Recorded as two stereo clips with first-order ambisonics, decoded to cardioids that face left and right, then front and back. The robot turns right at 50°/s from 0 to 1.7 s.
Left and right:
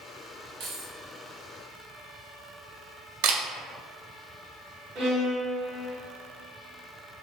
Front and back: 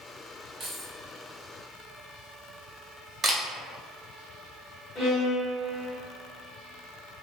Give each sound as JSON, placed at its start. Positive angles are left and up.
{"t": 0.6, "sound": "keys jangling", "azimuth_deg": -120, "distance_m": 1.7}
{"t": 3.2, "sound": "a camera shutter", "azimuth_deg": -105, "distance_m": 0.5}
{"t": 5.0, "sound": "a violin", "azimuth_deg": -65, "distance_m": 1.2}